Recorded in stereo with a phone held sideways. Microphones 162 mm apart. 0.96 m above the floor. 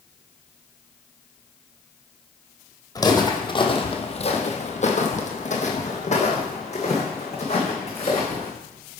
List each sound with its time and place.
3.0 s footsteps: 20° left (ahead or behind), 1.4 m; by 8.5 s 40° left (ahead or behind), 3 m